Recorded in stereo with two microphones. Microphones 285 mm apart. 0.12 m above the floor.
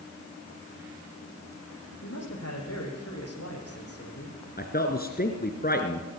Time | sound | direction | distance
2.0 | a man speaking | 65° left (ahead or behind) | 6.5 m
4.6 | a man speaking | 35° left (ahead or behind) | 2.0 m